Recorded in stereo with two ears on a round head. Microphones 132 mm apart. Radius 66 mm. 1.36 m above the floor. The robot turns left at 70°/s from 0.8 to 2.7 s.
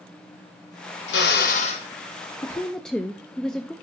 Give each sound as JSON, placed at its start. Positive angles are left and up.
{"t": 1.1, "sound": "a drill", "azimuth_deg": 85, "distance_m": 1.2}
{"t": 2.4, "sound": "a woman speaking", "side_deg": 20, "distance_m": 0.6}